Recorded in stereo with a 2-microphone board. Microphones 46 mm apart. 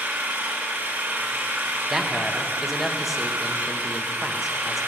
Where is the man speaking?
5° right (ahead or behind), 1.0 m.